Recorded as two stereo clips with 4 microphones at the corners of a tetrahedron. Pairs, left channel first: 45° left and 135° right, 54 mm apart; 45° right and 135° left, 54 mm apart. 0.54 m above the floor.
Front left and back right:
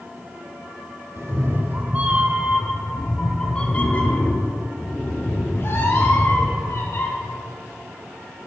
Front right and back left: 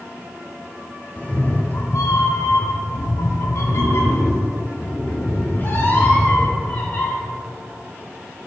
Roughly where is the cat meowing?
Right.